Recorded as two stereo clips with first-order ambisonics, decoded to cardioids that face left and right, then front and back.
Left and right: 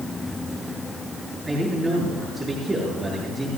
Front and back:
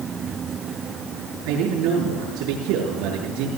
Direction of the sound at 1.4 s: 170° right.